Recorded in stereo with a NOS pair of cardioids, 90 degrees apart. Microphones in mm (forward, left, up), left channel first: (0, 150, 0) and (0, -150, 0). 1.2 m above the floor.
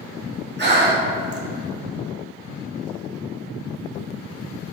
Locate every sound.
0.6 s breathing: 35° right, 1.7 m